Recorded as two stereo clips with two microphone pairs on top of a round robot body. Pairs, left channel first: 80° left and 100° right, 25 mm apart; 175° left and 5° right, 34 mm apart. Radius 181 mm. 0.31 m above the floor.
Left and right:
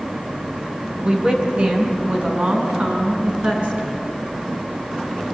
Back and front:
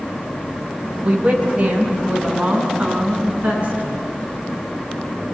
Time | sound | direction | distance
1.0 | a woman speaking | 55° right | 3 m